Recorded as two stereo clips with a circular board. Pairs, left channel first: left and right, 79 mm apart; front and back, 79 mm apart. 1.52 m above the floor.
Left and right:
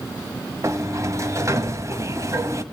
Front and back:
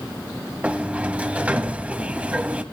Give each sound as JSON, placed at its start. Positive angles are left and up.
{"t": 0.6, "sound": "a sliding door", "azimuth_deg": -110, "distance_m": 1.7}